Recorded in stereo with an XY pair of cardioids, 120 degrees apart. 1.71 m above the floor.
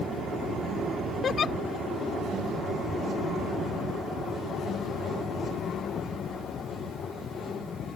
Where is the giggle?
40° left.